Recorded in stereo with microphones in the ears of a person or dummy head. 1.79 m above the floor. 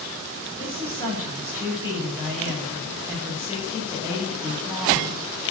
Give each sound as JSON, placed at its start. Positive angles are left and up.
{"t": 0.6, "sound": "a woman speaking", "side_deg": -10, "distance_m": 9.0}